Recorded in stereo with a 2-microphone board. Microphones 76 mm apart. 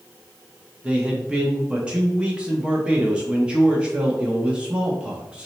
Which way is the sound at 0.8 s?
15° right (ahead or behind).